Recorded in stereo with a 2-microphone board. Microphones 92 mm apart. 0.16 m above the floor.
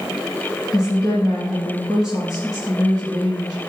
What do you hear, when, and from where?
0.7 s a woman speaking: 40° left (ahead or behind), 2 m